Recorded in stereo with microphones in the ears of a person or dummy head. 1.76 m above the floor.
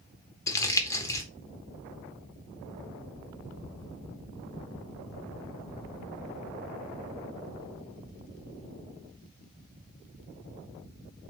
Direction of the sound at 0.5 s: 15° left (ahead or behind).